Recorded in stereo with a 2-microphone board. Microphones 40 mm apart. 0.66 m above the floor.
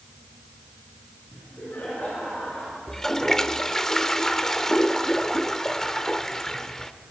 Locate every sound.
1.3 s laughter: 70° left (ahead or behind), 8.5 m; by 2.8 s 60° left (ahead or behind), 8 m
2.9 s a toilet flushing: 10° left (ahead or behind), 0.7 m